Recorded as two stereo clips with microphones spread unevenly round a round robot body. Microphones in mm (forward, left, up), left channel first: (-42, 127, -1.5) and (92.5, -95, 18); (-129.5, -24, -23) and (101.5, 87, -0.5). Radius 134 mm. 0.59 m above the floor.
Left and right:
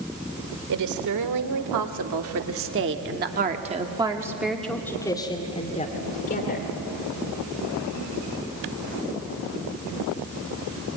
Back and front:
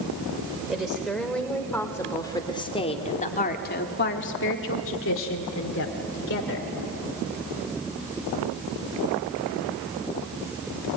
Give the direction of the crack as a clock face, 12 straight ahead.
No crack in this recording.